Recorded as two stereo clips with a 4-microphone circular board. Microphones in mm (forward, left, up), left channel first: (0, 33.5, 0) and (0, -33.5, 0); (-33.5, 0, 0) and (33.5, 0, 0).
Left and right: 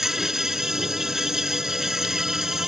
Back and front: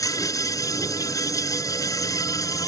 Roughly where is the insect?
Behind.